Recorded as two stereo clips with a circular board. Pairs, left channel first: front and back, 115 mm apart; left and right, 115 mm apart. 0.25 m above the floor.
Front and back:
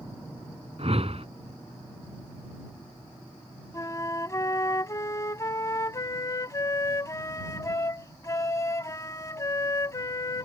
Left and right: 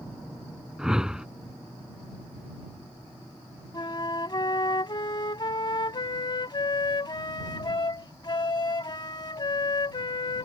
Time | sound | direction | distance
0.8 | a whoosh | 175° right | ?
3.7 | a flute | 55° left | ?